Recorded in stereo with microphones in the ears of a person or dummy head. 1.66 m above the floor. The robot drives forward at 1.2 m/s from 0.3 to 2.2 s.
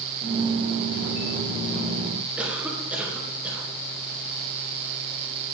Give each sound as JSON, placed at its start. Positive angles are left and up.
{"t": 2.4, "sound": "a cough", "side_deg": -5, "distance_m": 2.5}